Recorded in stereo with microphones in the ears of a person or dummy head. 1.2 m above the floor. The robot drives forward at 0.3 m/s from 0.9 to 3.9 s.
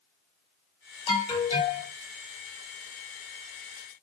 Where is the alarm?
15° left (ahead or behind), 1.4 m; by 1.9 s 20° left (ahead or behind), 1.3 m.